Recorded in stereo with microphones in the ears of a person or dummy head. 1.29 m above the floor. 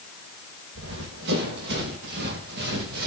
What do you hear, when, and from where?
0.8 s running footsteps: 65° right (ahead or behind), 9.5 m; by 3.1 s 60° right (ahead or behind), 8.5 m